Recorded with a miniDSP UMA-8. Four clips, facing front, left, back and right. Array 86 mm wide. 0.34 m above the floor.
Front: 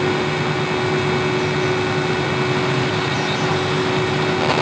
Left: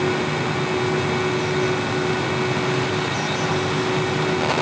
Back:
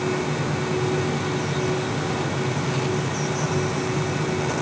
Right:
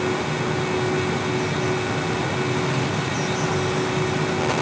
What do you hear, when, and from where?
Only background noise.